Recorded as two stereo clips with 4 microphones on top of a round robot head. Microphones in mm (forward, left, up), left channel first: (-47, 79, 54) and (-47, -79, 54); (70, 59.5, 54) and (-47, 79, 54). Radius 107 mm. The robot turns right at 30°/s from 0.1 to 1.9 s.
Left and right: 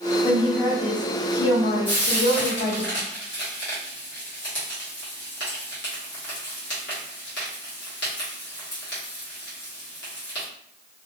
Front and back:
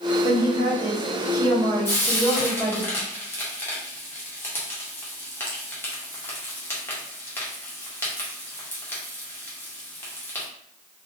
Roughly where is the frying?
Ahead left.